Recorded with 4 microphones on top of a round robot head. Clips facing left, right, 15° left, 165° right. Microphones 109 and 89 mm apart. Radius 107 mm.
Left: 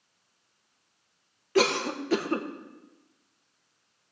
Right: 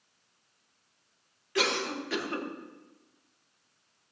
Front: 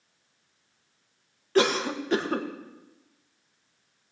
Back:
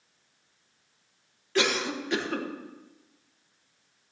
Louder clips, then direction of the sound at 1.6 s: Left 6 dB, front 4 dB; 55° left.